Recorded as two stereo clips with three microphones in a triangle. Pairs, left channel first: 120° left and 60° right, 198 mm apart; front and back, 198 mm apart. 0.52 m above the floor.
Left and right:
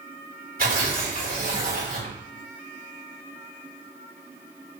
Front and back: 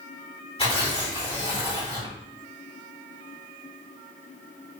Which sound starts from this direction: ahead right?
Tearing paper, at 0.6 s.